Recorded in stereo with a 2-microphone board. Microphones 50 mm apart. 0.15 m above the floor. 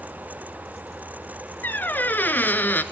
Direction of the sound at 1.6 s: 40° left (ahead or behind).